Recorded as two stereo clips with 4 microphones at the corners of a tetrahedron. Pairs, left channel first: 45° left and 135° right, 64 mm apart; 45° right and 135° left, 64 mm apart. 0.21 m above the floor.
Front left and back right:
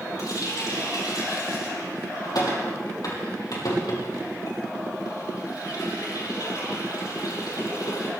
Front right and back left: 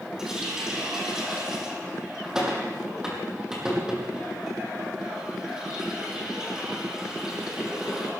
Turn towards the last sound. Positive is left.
turn(degrees=55)